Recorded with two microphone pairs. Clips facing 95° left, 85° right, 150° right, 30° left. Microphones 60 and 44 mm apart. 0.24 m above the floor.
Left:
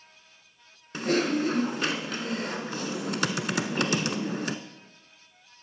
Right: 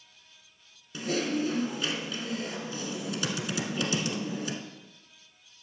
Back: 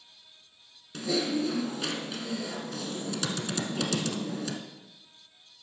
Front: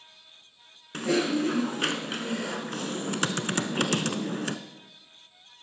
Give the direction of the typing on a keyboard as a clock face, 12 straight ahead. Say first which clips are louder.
Left 4 dB, front 3 dB; 10 o'clock.